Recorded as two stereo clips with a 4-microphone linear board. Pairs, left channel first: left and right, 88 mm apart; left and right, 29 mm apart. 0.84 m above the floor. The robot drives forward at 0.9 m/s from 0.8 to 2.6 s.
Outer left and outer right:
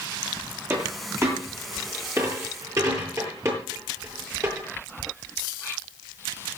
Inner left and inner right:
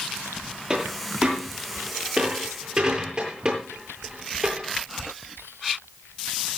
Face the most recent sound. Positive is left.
turn(degrees=-35)  # may be behind; listen again after turning